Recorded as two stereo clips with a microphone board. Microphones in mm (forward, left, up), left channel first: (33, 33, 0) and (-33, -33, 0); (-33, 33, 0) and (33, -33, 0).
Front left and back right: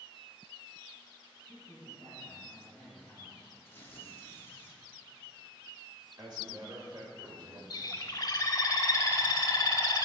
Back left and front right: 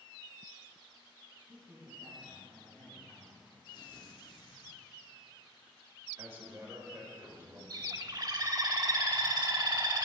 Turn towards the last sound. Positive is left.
turn(degrees=0)